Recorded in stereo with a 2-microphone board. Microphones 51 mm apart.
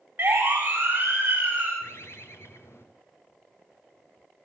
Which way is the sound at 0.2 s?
40° right (ahead or behind).